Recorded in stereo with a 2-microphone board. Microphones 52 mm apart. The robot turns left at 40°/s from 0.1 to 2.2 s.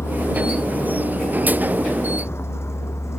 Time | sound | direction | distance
0.0 | a vehicle | 70° left (ahead or behind) | ?